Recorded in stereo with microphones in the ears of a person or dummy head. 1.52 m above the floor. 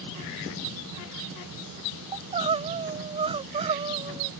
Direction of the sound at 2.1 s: 30° right (ahead or behind).